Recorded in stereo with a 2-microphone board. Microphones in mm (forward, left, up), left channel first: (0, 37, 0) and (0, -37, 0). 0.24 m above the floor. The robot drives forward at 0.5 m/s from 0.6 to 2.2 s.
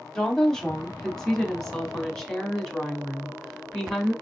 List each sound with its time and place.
0.1 s a woman speaking: 10° left (ahead or behind), 1.1 m; by 4.1 s 5° left (ahead or behind), 1.6 m